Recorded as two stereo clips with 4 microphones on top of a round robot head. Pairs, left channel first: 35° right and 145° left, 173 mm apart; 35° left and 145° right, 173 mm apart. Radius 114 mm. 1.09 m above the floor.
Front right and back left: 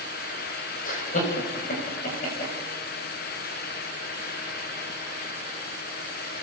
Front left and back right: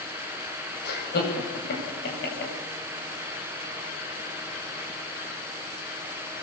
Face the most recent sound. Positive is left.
turn(degrees=10)